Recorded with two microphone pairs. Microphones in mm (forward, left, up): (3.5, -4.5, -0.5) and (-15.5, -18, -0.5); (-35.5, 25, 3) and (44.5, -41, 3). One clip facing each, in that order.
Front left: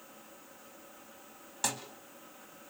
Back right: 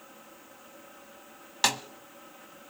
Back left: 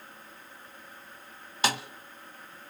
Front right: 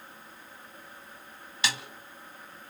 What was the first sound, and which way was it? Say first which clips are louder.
A snare drum: back right 9 dB, back left 5 dB; 175° right.